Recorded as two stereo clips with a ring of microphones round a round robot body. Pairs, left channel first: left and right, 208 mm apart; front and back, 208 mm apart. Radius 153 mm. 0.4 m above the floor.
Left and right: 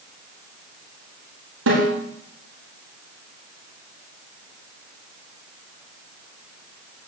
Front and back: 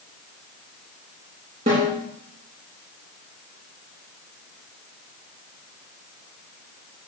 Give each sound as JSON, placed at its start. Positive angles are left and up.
{"t": 1.7, "sound": "a snare drum", "azimuth_deg": -120, "distance_m": 8.0}